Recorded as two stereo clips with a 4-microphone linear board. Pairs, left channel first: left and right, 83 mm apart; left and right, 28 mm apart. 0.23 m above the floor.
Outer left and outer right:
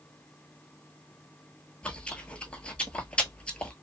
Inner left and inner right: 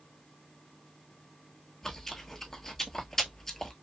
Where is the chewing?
10° left (ahead or behind), 0.7 m.